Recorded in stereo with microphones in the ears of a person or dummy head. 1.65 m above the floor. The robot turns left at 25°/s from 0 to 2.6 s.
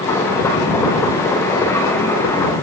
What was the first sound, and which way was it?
Only background noise.